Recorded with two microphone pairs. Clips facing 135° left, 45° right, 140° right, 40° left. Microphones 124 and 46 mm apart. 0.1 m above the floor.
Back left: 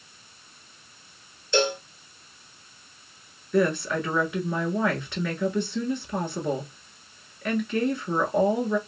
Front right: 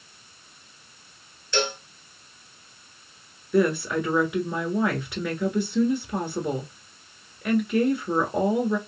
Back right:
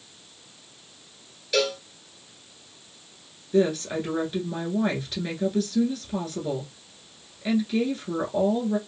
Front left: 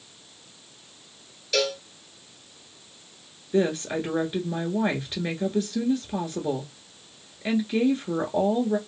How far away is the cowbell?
About 1.7 m.